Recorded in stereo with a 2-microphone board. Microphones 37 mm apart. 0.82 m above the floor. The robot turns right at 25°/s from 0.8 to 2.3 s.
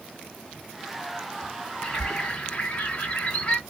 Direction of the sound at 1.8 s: 20° left (ahead or behind).